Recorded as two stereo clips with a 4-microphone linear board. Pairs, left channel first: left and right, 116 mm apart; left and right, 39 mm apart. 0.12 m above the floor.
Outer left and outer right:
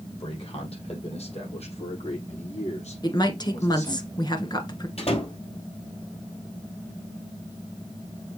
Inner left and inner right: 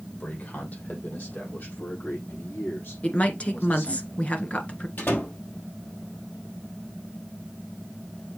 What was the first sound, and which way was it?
A man speaking, 50° left (ahead or behind).